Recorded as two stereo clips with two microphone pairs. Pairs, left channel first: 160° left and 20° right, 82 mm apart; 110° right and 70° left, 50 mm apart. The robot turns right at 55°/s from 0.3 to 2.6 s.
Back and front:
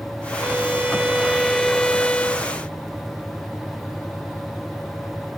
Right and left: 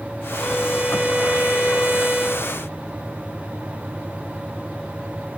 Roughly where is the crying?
I don't hear crying.